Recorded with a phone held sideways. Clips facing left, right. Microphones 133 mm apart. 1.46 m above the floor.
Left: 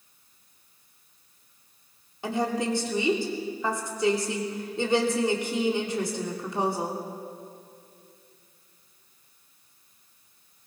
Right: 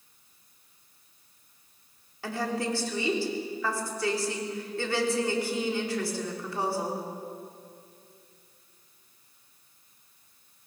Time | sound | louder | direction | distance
2.2 | a woman speaking | left 4 dB | 20° left (ahead or behind) | 3 m